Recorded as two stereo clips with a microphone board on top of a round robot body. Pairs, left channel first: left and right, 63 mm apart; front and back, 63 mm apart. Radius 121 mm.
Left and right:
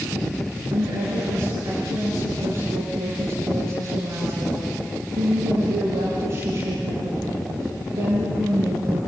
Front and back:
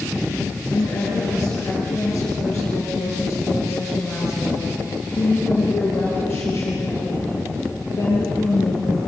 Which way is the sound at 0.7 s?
65° right.